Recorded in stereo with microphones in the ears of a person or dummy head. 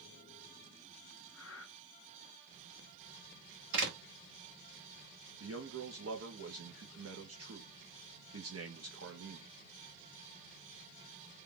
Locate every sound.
1.3 s breathing: 70° left (ahead or behind), 1.1 m
3.7 s a door slam: 75° right (ahead or behind), 1.4 m
5.4 s a man speaking: 65° right (ahead or behind), 1.2 m